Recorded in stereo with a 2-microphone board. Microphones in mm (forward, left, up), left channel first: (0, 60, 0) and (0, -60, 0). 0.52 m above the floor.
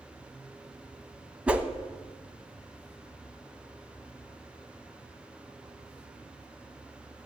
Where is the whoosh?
10° right (ahead or behind), 0.9 m.